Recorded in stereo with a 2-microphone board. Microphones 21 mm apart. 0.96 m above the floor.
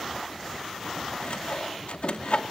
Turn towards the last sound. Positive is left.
turn(degrees=70)  # may be behind; listen again after turning